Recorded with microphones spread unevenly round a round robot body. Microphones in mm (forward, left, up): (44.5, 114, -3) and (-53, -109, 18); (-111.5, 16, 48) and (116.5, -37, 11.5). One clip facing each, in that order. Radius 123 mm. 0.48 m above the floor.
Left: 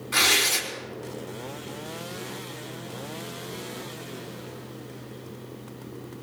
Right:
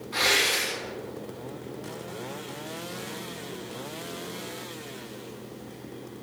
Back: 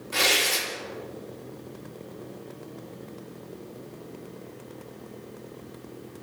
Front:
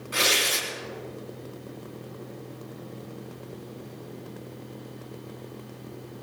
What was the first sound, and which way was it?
Tearing paper, 70° left.